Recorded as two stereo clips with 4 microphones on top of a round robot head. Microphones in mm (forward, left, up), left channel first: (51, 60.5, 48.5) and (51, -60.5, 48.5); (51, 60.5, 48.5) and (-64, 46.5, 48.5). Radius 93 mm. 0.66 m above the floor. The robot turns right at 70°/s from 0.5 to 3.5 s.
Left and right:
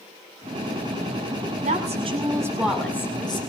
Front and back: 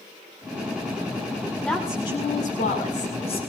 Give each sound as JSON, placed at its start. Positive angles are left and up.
{"t": 1.6, "sound": "a woman speaking", "azimuth_deg": -80, "distance_m": 7.0}